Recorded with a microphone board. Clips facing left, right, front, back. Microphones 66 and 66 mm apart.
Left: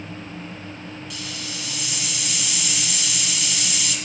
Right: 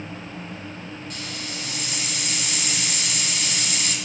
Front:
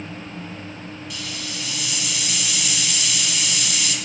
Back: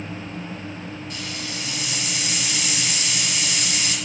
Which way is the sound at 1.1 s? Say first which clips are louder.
Even, back 1 dB; 135° right.